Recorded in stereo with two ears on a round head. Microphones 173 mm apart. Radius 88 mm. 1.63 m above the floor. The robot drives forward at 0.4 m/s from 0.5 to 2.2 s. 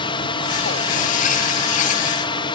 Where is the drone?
25° left (ahead or behind).